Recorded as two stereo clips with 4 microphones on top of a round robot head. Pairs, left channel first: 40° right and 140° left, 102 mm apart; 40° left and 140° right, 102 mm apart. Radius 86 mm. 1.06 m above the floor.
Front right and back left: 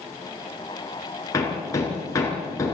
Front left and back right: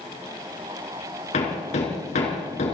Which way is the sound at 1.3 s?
25° left.